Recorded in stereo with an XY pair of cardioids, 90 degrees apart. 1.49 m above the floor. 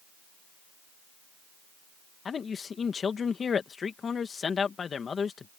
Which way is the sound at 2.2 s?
50° left.